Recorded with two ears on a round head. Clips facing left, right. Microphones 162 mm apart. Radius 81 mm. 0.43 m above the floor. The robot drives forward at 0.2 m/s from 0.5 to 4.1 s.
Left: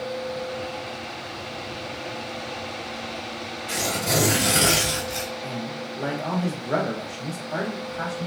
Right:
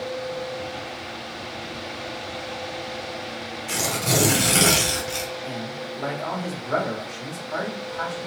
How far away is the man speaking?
About 0.9 m.